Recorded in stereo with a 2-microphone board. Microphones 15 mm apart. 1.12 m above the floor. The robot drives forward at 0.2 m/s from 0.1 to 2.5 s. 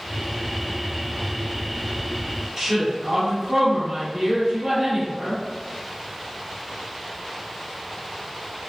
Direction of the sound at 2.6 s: 50° right (ahead or behind).